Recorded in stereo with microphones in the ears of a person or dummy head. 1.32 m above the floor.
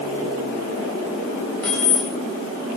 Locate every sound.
1.6 s keys jangling: 15° left (ahead or behind), 0.9 m